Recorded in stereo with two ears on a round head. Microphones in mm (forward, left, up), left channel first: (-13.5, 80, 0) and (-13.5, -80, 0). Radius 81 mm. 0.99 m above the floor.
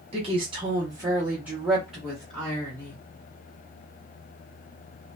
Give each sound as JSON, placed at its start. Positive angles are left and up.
{"t": 0.1, "sound": "a woman speaking", "side_deg": -35, "distance_m": 0.9}